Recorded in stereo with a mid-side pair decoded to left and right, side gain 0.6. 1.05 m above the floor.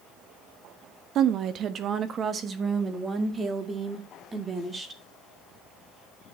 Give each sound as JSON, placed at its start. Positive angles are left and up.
{"t": 1.1, "sound": "a woman speaking", "azimuth_deg": -60, "distance_m": 1.0}